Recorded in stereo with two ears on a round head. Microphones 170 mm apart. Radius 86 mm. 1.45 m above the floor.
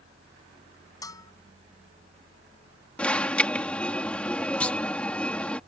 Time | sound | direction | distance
1.0 | a bell | 20° left (ahead or behind) | ?
3.0 | an alarm | 5° left (ahead or behind) | ?
4.6 | a clunk | 5° left (ahead or behind) | ?